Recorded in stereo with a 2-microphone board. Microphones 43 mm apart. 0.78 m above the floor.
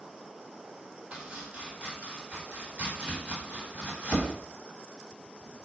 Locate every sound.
1.1 s chopping: 30° right (ahead or behind), 1.4 m